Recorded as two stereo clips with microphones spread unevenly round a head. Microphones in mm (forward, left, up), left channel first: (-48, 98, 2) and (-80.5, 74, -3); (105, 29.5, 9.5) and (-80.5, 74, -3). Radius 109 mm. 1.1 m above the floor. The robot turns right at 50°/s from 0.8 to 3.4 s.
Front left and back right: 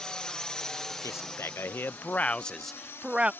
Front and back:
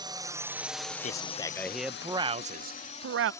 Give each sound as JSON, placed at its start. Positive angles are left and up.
{"t": 0.0, "sound": "a drone", "azimuth_deg": 110}
{"t": 1.0, "sound": "a man speaking", "azimuth_deg": 40}